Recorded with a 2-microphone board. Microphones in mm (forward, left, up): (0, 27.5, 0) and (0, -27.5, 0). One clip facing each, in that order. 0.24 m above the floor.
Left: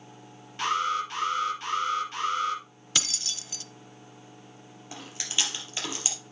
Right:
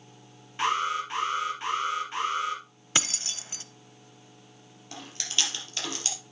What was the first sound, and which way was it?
An alarm, 25° right (ahead or behind).